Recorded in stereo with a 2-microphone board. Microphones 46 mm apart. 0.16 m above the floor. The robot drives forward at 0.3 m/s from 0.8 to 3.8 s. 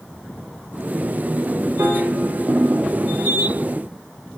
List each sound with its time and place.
1.8 s a piano: 50° right (ahead or behind), 7.5 m; by 3.6 s 55° right (ahead or behind), 7.5 m